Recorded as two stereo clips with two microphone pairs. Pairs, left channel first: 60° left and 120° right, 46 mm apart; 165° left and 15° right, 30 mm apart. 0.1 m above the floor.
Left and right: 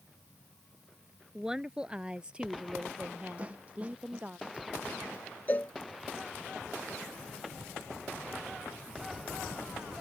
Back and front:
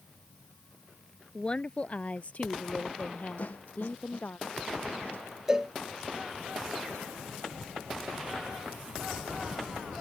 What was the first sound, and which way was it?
A woman speaking, 170° left.